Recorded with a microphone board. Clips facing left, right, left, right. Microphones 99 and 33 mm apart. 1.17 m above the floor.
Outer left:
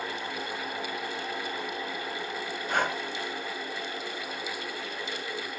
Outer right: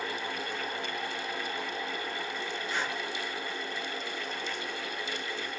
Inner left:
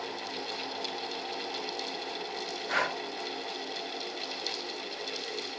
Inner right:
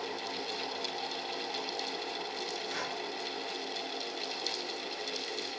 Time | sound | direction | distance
2.7 | breathing | 60° left (ahead or behind) | 0.7 m